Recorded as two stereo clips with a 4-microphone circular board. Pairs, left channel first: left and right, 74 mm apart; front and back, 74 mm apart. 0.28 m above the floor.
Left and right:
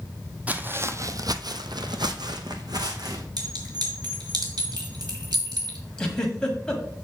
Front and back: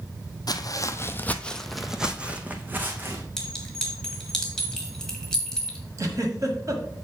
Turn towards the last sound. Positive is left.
turn(degrees=165)